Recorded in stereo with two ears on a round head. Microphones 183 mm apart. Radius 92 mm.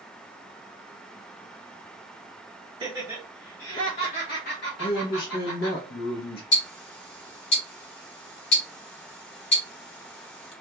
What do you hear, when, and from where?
2.8 s laughter: 20° right (ahead or behind), 0.9 m; by 5.8 s 75° left (ahead or behind), 1.5 m
4.8 s a man speaking: 50° left (ahead or behind), 0.6 m
6.5 s ticking: 55° left (ahead or behind), 1.5 m